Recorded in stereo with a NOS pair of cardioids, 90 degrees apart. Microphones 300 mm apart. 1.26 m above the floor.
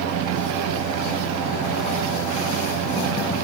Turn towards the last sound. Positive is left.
turn(degrees=-65)